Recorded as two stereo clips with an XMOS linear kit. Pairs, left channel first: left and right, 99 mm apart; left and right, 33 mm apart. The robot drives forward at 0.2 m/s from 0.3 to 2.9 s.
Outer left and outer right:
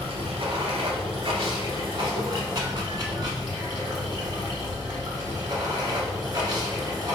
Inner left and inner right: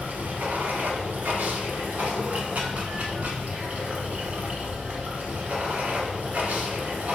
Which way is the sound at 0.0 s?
70° right (ahead or behind).